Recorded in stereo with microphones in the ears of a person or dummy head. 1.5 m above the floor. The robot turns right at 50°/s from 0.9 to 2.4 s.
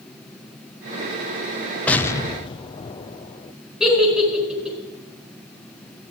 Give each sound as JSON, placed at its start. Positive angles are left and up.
{"t": 1.9, "sound": "an explosion", "side_deg": 5, "distance_m": 0.6}
{"t": 3.8, "sound": "a giggle", "side_deg": -10, "distance_m": 4.0}